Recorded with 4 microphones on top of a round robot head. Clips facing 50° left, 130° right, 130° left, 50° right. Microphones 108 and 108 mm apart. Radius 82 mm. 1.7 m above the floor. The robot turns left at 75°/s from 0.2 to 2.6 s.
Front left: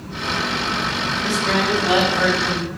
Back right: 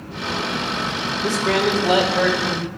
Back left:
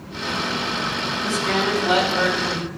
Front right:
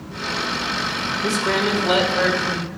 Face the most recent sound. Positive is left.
turn(degrees=-175)